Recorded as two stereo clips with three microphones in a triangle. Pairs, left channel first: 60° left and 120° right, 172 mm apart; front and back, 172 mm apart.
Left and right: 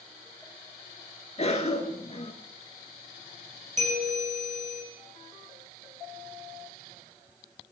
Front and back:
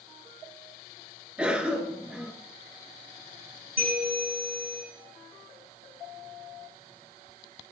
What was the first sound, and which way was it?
A cough, 100° left.